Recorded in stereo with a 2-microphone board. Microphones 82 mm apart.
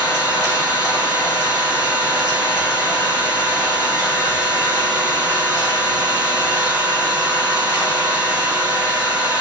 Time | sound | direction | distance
0.0 | an engine running | 35° left (ahead or behind) | 1.4 m